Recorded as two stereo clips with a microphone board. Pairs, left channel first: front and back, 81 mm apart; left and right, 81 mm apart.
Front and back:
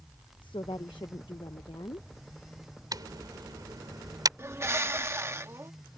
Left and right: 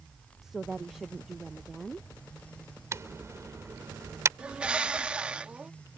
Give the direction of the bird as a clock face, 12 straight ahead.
5 o'clock.